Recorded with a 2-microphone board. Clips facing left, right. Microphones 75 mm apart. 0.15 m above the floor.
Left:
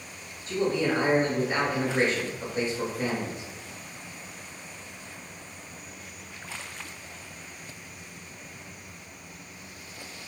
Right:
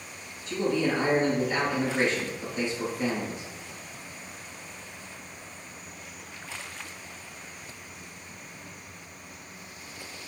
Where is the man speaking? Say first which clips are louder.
Even; 40° left (ahead or behind), 1.4 m.